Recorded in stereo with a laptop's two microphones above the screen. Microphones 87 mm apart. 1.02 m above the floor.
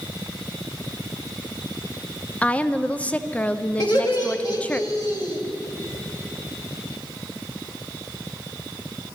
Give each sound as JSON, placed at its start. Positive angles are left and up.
{"t": 2.4, "sound": "a woman speaking", "side_deg": 15, "distance_m": 0.6}
{"t": 3.8, "sound": "laughter", "side_deg": 50, "distance_m": 2.0}